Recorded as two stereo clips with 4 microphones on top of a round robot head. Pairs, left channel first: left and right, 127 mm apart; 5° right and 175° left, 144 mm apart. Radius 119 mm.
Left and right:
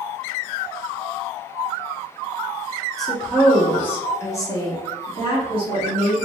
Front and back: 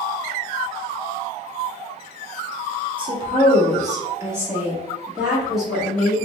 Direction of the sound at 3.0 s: Straight behind.